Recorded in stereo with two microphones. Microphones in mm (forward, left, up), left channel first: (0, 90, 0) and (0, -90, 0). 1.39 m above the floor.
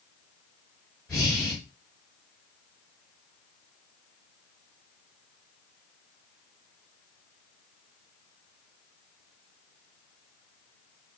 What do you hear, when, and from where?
1.1 s breathing: centre (ahead or behind), 1.4 m